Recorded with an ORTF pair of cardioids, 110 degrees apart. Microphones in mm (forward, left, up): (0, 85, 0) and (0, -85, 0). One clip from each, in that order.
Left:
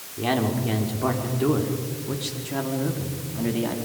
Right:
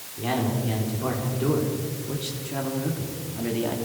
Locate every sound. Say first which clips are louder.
0.2 s a man speaking: left 3 dB; 30° left, 4.5 m; by 3.8 s 5° left, 3 m